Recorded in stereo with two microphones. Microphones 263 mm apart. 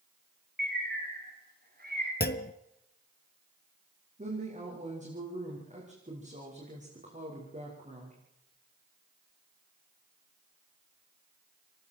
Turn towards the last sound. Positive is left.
turn(degrees=-30)  # may be behind; listen again after turning